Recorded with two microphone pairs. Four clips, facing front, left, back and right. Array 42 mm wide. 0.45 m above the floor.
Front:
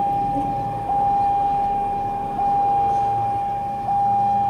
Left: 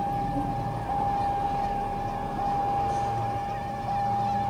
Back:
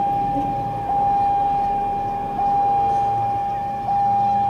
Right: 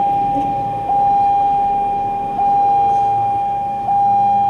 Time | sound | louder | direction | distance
0.0 | a vehicle | right 13 dB, back 1 dB | 95° right | ?